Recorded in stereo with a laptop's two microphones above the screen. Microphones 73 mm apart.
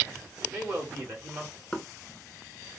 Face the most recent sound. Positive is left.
turn(degrees=10)  # may be behind; listen again after turning